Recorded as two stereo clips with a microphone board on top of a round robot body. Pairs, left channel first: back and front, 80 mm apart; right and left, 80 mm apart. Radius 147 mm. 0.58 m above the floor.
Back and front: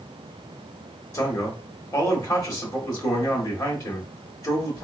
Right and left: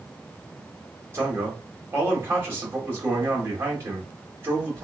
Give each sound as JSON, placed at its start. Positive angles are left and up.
{"t": 1.1, "sound": "a man speaking", "azimuth_deg": 145, "distance_m": 1.8}